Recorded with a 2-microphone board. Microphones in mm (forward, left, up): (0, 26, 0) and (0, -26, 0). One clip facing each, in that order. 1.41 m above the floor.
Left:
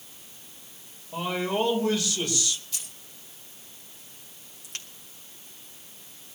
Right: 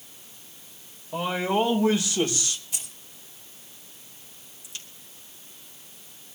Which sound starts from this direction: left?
A crack, at 4.6 s.